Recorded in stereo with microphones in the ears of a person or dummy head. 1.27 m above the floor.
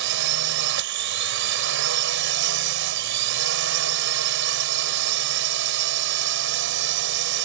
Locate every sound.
0.0 s a drone: 65° right (ahead or behind)